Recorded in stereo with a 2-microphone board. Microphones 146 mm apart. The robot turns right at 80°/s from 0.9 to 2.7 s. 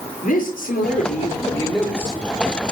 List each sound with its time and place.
0.2 s a man speaking: 110° left, 5.5 m; by 2.2 s 150° right, 5.5 m